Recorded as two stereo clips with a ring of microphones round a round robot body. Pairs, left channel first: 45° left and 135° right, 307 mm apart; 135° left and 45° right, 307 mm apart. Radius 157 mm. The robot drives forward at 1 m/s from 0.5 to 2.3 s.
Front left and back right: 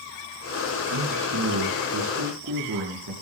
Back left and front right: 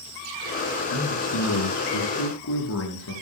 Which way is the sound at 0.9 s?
175° left.